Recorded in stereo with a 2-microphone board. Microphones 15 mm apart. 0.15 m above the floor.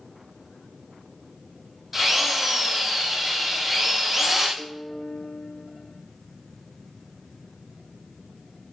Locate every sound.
1.9 s a drill: 15° right (ahead or behind), 5.5 m
4.6 s a piano: 55° left (ahead or behind), 1.4 m